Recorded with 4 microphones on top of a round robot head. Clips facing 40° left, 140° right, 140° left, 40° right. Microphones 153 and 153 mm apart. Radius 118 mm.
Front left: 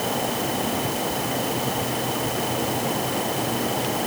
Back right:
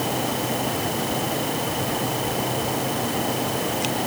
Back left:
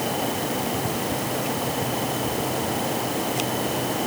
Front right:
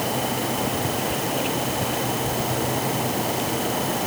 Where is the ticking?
No ticking in this recording.